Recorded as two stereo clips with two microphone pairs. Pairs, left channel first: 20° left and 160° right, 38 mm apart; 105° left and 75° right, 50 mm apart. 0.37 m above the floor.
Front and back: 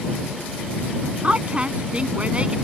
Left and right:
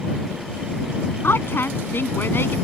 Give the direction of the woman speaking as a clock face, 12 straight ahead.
7 o'clock.